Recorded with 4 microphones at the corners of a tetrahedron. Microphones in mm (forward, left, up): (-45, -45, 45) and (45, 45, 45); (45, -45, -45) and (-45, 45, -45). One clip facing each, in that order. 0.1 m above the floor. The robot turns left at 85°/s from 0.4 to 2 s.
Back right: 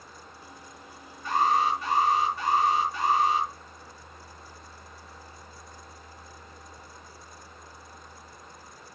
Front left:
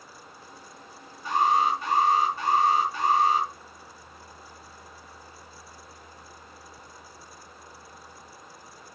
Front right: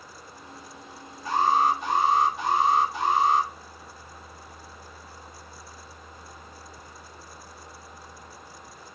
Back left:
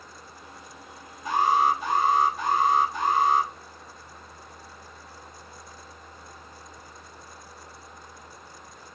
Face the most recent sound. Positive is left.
turn(degrees=35)